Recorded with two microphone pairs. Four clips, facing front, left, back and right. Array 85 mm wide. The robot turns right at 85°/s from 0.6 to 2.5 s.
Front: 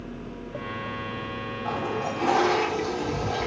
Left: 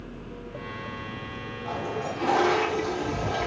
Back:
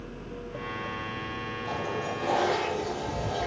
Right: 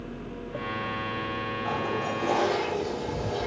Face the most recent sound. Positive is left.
turn(degrees=50)